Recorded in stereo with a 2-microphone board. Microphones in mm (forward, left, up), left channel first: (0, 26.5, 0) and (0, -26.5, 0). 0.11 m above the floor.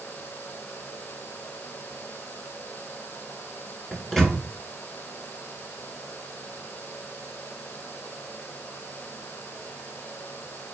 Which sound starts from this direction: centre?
A microwave, at 3.9 s.